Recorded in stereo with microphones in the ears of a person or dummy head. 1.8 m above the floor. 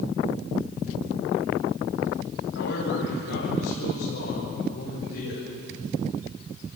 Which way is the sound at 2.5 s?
75° left (ahead or behind).